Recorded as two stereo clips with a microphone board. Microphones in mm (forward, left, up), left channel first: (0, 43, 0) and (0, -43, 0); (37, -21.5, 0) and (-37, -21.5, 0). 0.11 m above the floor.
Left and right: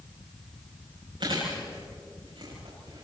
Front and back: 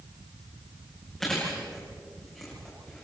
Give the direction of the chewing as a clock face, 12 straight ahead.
3 o'clock.